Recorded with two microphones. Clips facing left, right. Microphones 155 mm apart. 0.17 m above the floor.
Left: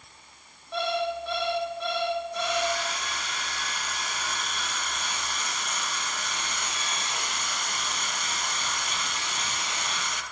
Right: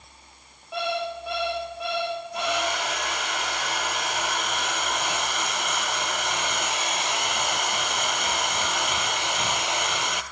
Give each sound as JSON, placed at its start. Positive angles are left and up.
{"t": 0.7, "sound": "an alarm clock", "side_deg": -5, "distance_m": 7.5}
{"t": 2.4, "sound": "a hair dryer", "side_deg": -85, "distance_m": 0.7}